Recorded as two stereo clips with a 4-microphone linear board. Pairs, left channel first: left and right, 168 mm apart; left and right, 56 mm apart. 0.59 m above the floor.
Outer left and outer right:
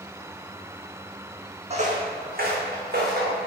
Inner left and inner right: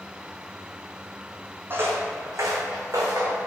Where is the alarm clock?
No alarm clock in this recording.